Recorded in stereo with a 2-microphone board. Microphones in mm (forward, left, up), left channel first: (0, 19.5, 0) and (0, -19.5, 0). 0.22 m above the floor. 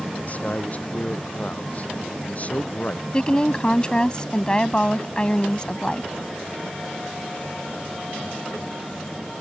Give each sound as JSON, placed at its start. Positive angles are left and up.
{"t": 0.2, "sound": "a man speaking", "side_deg": 40}
{"t": 3.1, "sound": "a woman speaking", "side_deg": 25}